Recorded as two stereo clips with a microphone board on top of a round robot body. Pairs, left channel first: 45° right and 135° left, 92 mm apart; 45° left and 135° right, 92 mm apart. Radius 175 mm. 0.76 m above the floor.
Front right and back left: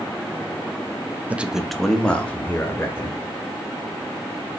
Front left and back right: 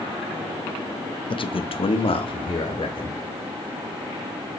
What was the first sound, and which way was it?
A man speaking, 60° left.